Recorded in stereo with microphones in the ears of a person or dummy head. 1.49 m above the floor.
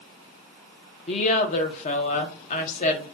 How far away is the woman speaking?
About 1.0 m.